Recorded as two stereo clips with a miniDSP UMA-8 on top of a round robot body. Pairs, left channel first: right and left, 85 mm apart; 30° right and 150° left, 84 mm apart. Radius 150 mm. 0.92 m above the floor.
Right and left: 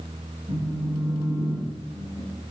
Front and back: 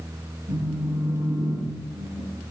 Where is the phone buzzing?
145° left, 9 m.